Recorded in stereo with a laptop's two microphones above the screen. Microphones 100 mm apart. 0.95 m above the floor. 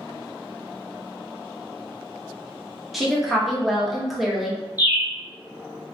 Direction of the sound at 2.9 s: Centre (ahead or behind).